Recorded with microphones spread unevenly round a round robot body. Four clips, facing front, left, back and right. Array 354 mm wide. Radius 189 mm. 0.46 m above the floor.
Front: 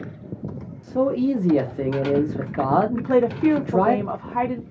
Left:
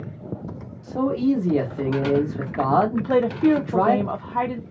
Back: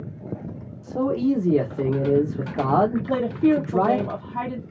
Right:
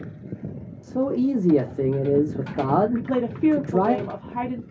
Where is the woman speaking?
20° left, 0.8 m.